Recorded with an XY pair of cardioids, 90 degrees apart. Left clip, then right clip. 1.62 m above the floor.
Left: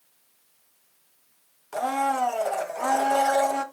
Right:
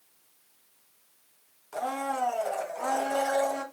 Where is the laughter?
No laughter in this recording.